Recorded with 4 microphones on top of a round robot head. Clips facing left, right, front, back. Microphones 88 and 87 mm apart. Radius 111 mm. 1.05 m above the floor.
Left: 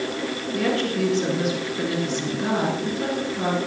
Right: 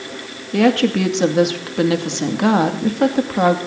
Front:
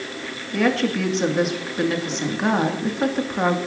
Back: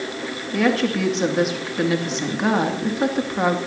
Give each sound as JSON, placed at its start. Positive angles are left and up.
{"t": 0.5, "sound": "a woman speaking", "azimuth_deg": -95, "distance_m": 2.0}